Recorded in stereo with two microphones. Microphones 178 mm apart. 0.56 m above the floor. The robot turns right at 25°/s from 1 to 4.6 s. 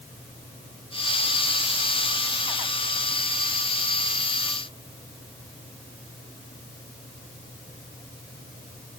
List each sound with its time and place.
Only background noise.